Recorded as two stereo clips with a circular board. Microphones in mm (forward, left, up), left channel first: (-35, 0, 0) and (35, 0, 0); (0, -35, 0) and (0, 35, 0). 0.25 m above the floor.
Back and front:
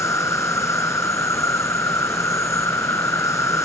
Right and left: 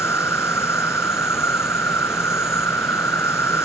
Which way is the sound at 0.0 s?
140° right.